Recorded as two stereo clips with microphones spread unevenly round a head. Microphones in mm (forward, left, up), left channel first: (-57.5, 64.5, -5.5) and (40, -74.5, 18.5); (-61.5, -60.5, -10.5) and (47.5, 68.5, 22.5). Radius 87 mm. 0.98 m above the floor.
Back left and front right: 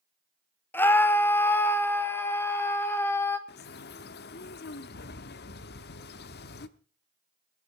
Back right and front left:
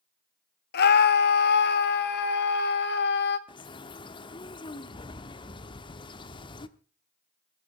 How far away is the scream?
About 1.5 m.